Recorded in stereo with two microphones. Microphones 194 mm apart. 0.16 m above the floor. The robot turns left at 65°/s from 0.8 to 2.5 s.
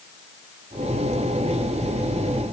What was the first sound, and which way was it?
Only background noise.